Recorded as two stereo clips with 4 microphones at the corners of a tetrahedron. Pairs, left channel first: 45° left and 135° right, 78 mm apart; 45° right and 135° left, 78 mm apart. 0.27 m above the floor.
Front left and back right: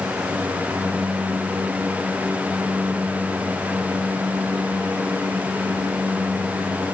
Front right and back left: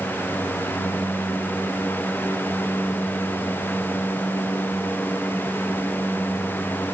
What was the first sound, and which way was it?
Only background noise.